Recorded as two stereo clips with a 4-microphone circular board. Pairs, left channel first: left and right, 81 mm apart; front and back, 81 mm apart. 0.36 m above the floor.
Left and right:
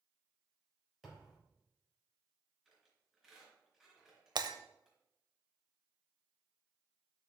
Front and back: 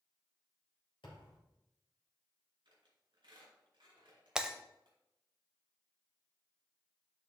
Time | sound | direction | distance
1.0 | a thud | straight ahead | 4 m
2.6 | a squeak | 170° right | 3.5 m
4.3 | breaking glass | 100° right | 0.6 m